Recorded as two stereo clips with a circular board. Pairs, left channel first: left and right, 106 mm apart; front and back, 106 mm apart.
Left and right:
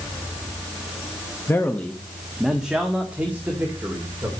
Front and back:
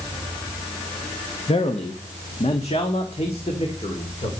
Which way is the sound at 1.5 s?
25° left.